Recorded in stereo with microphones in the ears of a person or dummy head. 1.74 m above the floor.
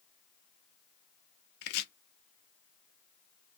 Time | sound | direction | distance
1.6 | chopping | 65° left (ahead or behind) | 0.8 m